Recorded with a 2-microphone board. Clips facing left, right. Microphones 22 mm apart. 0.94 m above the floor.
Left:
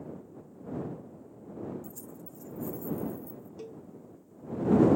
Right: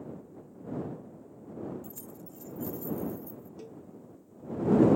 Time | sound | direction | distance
1.8 | keys jangling | 55° right (ahead or behind) | ?
3.6 | a cowbell | 10° left (ahead or behind) | ?